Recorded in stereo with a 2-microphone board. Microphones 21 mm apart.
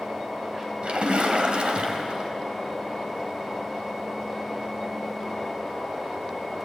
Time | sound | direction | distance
0.8 | a splash | 55° right (ahead or behind) | 2.5 m